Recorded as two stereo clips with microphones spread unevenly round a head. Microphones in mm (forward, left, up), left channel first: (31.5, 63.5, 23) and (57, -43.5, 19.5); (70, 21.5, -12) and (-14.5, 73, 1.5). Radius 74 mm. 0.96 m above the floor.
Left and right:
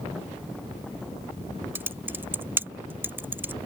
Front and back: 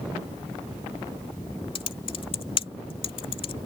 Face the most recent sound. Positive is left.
turn(degrees=-5)